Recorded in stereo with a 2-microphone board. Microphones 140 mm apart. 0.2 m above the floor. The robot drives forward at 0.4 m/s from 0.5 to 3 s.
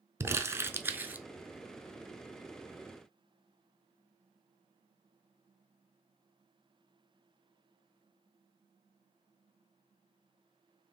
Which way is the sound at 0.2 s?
20° right (ahead or behind).